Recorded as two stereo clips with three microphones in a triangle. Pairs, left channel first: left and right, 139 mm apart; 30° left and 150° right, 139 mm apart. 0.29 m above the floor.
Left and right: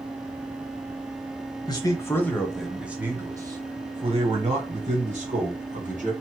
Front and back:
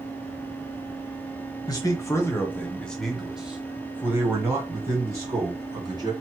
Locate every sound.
1.7 s a man speaking: 65° left, 1.2 m; by 6.1 s 90° right, 2.5 m